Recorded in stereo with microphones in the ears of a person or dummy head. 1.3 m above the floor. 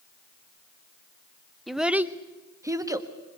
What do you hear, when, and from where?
1.7 s a child speaking: centre (ahead or behind), 0.6 m; by 3.1 s 15° right (ahead or behind), 1.5 m